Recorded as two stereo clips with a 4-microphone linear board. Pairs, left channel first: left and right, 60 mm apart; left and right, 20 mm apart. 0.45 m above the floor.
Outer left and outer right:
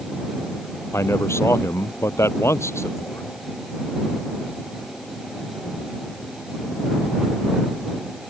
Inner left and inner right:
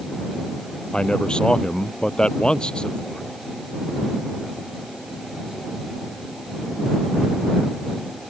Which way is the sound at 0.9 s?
50° left (ahead or behind).